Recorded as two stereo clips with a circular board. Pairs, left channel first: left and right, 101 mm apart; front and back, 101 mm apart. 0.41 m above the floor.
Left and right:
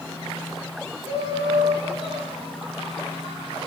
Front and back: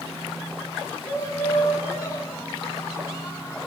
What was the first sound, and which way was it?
Laughter, 60° right.